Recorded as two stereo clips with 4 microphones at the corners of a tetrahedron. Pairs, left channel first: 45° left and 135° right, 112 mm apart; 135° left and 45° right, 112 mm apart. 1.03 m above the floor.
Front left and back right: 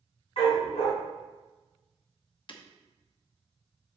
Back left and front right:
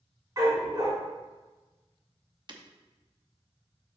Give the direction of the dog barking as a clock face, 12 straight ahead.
12 o'clock.